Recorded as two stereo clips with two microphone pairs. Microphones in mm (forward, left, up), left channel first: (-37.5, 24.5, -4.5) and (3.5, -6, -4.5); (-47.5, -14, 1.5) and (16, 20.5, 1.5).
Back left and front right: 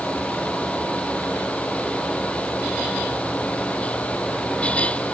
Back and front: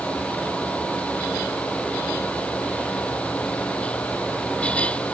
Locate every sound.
Only background noise.